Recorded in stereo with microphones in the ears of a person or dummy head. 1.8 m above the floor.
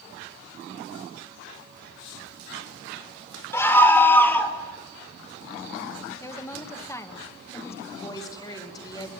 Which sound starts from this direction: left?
A woman speaking, at 7.9 s.